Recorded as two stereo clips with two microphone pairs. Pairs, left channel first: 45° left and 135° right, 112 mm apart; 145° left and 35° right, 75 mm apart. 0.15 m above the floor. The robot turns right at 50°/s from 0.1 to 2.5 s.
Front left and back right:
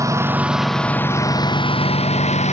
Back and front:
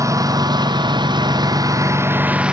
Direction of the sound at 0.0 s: 75° right.